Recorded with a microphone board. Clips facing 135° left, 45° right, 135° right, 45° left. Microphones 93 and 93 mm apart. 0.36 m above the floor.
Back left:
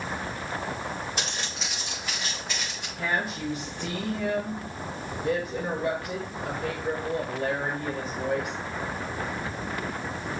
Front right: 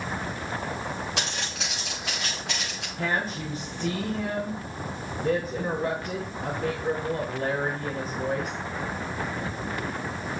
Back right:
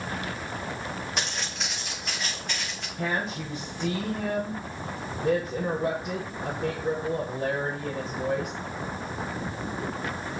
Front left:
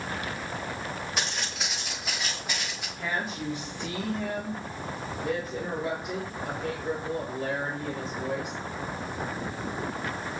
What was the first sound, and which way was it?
Footsteps, 45° right.